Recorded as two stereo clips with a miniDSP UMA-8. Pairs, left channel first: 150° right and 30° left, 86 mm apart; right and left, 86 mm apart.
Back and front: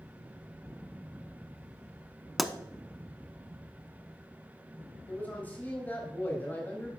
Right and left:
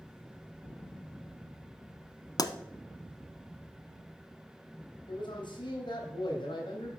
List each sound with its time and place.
2.4 s a pop: 60° right, 0.7 m
5.1 s a man speaking: 80° right, 3.5 m